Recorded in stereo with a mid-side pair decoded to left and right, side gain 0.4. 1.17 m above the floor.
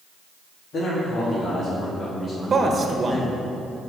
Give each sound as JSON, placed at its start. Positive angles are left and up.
{"t": 0.7, "sound": "a man speaking", "azimuth_deg": 70, "distance_m": 3.0}
{"t": 2.5, "sound": "a man speaking", "azimuth_deg": -45, "distance_m": 1.3}